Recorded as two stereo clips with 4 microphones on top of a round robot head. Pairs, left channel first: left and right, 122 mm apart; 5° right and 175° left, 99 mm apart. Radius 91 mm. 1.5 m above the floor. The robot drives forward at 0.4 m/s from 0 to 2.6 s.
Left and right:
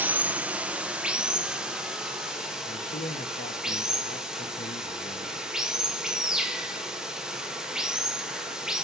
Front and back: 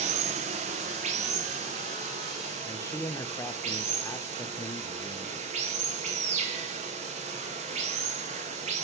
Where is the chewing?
I don't hear chewing.